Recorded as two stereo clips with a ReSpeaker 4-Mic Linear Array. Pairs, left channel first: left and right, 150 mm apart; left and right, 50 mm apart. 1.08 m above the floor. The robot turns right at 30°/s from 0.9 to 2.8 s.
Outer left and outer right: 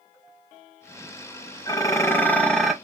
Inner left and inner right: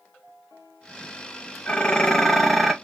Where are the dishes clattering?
150° left, 0.7 m; by 2.7 s straight behind, 0.7 m.